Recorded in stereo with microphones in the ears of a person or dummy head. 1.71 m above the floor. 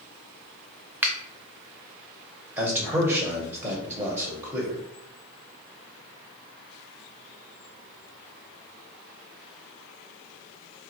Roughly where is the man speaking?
Centre.